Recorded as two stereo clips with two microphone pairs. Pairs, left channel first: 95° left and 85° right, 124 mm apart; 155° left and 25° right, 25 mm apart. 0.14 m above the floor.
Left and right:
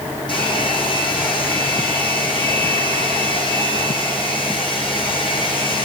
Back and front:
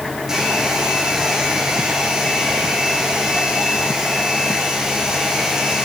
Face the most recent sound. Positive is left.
turn(degrees=45)